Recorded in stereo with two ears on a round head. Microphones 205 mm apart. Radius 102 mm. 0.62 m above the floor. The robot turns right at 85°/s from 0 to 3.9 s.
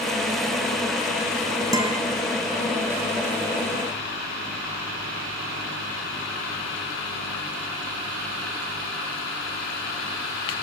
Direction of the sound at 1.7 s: 15° right (ahead or behind).